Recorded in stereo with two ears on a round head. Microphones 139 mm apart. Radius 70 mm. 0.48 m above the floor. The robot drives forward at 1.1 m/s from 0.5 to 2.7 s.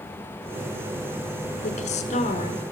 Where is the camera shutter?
No camera shutter in this recording.